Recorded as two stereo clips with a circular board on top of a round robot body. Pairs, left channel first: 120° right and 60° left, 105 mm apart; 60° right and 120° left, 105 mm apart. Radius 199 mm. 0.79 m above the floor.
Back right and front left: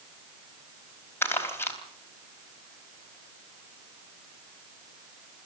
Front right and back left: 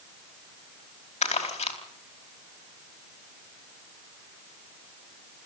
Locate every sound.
1.2 s crumpling: 50° right, 3.5 m